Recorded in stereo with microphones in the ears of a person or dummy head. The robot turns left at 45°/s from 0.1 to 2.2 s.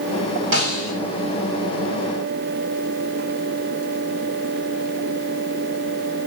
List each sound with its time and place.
0.5 s a snare drum: 75° right (ahead or behind), 6 m; by 0.9 s 80° right, 6 m